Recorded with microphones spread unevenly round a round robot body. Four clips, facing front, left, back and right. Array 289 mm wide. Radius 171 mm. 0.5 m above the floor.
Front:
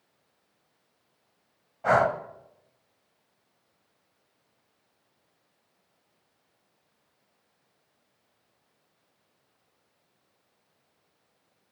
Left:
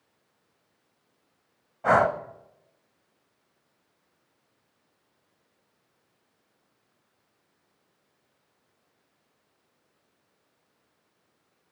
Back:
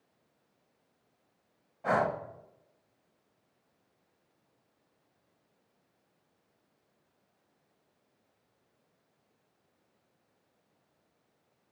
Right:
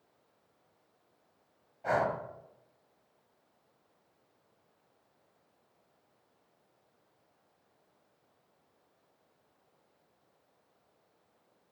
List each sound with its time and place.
1.8 s breathing: 60° left, 0.6 m